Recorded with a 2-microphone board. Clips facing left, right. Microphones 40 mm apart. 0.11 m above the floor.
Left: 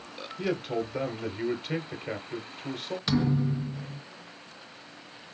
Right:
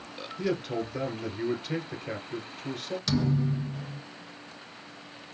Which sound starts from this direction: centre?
A man speaking, at 0.4 s.